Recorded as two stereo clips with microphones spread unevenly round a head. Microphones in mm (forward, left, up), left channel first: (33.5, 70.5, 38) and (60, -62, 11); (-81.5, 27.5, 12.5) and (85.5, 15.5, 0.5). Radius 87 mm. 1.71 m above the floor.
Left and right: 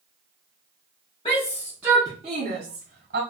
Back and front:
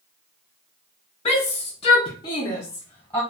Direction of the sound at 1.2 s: 140° left.